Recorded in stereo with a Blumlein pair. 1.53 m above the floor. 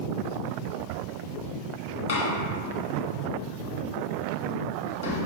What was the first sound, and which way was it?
A door slam, 55° left.